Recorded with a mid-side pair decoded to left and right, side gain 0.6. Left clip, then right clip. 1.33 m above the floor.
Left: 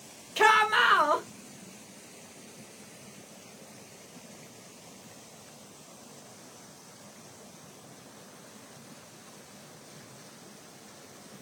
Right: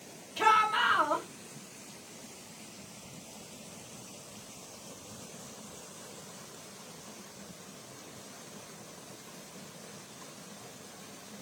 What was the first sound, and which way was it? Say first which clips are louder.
A shout: left 4 dB; 60° left.